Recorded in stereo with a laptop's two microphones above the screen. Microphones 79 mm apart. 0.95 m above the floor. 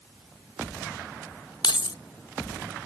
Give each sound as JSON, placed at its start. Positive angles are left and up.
{"t": 1.6, "sound": "keys jangling", "side_deg": 70}